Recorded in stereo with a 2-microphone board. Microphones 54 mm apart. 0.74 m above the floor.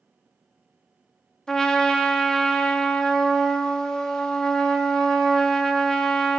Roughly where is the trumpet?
Centre.